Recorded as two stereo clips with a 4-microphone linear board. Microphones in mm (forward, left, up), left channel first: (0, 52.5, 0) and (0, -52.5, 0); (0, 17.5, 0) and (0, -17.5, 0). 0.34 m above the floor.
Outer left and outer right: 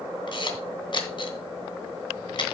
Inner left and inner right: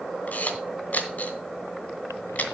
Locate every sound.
0.3 s a camera shutter: 50° left (ahead or behind), 2.5 m